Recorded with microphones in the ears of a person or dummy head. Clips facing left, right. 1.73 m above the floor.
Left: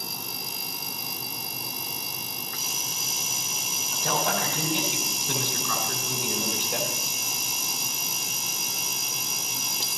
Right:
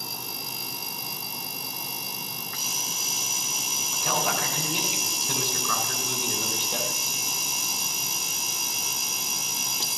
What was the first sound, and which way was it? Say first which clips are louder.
A man speaking: left 1 dB; 10° right (ahead or behind).